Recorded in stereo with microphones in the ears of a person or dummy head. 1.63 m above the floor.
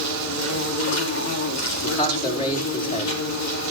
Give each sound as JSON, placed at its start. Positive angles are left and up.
{"t": 0.0, "sound": "an insect", "side_deg": 80, "distance_m": 3.5}
{"t": 1.8, "sound": "a man speaking", "side_deg": 30, "distance_m": 5.0}